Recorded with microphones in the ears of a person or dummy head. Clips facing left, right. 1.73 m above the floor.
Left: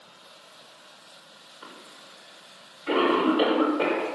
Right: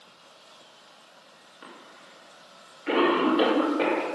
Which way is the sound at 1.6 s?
25° right (ahead or behind).